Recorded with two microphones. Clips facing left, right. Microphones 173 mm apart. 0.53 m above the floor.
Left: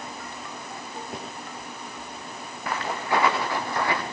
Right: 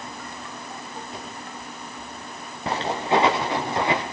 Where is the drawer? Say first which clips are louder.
Left 3 dB; 50° left (ahead or behind), 6.5 m.